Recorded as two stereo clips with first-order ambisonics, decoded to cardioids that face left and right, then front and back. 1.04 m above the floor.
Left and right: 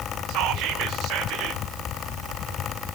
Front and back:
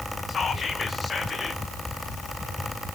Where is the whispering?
70° right, 0.9 m.